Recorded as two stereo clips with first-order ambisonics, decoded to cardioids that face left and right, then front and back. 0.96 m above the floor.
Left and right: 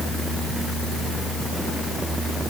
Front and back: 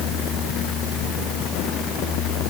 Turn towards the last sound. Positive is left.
No sound to turn to.